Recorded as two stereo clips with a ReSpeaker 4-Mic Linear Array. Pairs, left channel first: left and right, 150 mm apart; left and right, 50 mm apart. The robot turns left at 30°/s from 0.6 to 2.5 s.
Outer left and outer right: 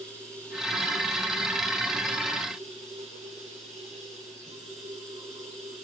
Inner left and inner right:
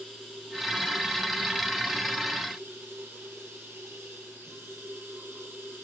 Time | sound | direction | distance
0.0 | running water | 10° left | 9.5 m